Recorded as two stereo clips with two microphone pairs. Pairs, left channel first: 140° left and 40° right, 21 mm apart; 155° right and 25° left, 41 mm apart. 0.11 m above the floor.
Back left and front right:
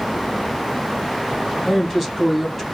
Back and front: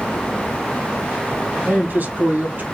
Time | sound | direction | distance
1.6 | a man speaking | 55° left | 3 m